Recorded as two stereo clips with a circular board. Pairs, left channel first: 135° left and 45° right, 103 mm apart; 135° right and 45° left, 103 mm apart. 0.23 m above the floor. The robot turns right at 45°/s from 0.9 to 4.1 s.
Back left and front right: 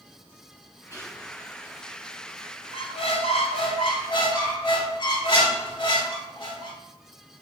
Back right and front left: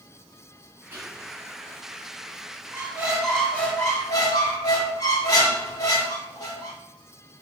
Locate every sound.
0.9 s whispering: 100° left, 1.8 m; by 1.3 s 120° left, 1.8 m
2.7 s a squeak: 115° left, 1.0 m; by 6.8 s 175° left, 1.0 m